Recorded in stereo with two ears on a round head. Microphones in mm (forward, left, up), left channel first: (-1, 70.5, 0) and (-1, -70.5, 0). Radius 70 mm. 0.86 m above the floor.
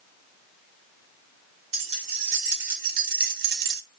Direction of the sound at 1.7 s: 50° right (ahead or behind).